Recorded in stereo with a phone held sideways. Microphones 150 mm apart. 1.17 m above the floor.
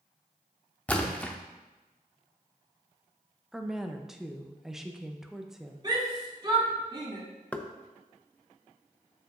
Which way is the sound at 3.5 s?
5° right (ahead or behind).